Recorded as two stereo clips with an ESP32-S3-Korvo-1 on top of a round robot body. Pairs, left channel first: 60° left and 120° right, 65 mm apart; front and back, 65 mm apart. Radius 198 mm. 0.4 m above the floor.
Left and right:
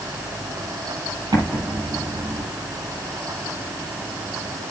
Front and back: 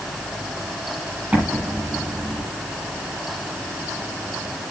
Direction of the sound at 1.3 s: 115° right.